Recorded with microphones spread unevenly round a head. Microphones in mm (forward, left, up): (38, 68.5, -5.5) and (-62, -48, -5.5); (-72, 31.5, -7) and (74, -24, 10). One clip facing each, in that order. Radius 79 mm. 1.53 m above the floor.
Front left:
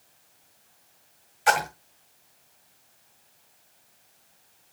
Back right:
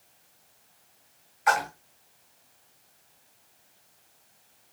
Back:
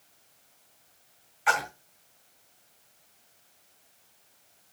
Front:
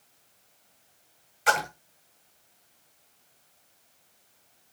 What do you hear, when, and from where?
1.5 s a splash: straight ahead, 2.5 m